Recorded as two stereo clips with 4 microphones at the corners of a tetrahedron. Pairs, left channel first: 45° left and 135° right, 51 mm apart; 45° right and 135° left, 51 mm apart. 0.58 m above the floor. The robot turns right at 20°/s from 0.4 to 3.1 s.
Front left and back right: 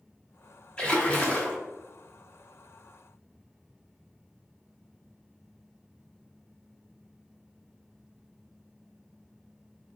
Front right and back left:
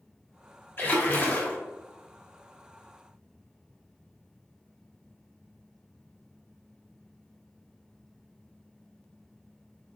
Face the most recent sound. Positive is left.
turn(degrees=35)